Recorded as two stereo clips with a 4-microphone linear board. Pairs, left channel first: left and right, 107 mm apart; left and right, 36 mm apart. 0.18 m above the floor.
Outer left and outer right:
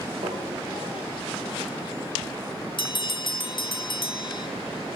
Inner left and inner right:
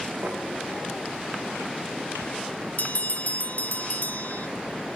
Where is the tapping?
80° right, 6 m.